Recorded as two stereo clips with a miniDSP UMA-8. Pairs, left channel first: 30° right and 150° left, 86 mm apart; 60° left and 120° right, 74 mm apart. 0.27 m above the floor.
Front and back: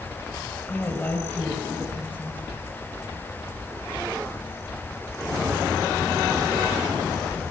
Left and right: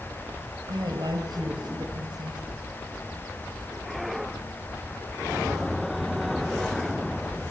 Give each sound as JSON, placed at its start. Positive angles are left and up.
{"t": 0.7, "sound": "a woman speaking", "azimuth_deg": -100, "distance_m": 5.0}